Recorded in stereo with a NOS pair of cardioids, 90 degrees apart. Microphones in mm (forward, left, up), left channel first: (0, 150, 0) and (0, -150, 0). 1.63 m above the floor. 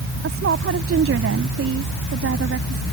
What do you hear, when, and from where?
0.2 s a woman speaking: 45° right